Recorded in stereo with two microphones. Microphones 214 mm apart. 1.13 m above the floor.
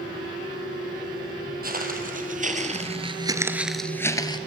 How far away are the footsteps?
About 2.5 m.